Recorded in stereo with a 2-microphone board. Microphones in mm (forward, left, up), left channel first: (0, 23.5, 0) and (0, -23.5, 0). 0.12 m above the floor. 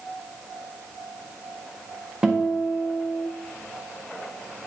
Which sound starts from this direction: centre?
A guitar, at 2.2 s.